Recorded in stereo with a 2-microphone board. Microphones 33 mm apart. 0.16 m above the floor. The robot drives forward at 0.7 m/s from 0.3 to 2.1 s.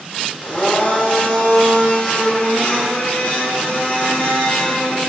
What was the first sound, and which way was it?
A blender, 35° left (ahead or behind).